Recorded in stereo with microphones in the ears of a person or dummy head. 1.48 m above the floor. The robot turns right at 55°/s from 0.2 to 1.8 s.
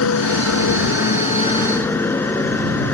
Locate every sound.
0.0 s a motorcycle: 85° left; by 2.9 s 175° left